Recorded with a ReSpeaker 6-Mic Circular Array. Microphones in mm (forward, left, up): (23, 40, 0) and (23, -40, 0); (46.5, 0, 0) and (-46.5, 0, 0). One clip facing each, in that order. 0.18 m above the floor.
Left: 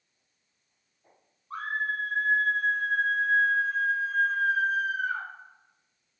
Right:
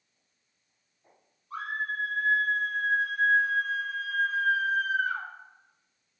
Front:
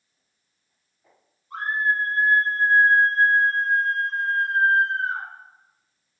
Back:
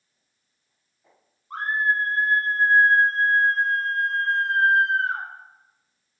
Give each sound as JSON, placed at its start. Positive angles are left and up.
{"t": 1.5, "sound": "a scream", "azimuth_deg": 140, "distance_m": 5.5}